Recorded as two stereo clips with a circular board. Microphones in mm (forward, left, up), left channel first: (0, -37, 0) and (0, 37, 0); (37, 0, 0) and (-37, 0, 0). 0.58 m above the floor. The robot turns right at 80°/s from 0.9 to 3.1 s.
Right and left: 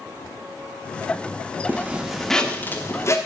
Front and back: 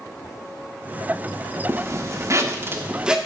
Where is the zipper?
140° left, 1.2 m; by 3.2 s 110° right, 1.2 m.